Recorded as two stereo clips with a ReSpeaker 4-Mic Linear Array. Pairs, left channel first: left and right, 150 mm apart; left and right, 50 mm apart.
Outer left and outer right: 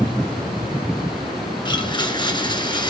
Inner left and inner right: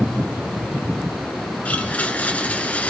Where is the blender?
30° left (ahead or behind), 2 m.